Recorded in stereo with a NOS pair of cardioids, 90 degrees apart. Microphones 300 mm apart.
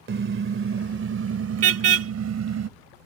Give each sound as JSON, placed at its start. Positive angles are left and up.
{"t": 0.1, "sound": "a car horn", "azimuth_deg": -40}